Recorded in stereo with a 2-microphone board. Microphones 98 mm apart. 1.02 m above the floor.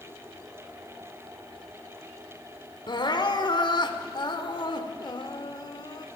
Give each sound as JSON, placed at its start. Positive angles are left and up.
{"t": 2.9, "sound": "crying", "side_deg": 50, "distance_m": 1.8}